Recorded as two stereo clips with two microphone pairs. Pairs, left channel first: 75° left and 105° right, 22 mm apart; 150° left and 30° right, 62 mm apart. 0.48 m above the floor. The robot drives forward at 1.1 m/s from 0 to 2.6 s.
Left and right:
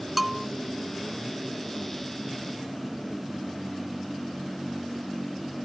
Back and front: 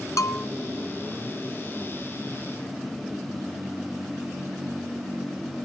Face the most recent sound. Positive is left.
turn(degrees=180)